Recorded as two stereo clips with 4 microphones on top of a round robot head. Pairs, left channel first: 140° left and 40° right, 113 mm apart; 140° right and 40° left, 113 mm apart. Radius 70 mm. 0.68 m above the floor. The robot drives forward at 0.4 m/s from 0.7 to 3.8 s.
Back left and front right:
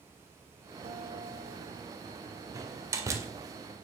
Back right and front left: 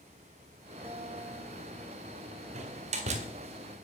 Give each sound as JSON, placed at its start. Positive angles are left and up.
{"t": 0.8, "sound": "a guitar", "azimuth_deg": -25, "distance_m": 2.0}
{"t": 2.5, "sound": "a door slam", "azimuth_deg": 20, "distance_m": 2.0}